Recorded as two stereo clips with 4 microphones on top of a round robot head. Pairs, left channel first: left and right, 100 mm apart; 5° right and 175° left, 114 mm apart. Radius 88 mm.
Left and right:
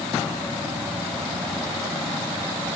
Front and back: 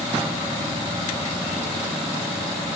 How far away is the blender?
I don't hear a blender.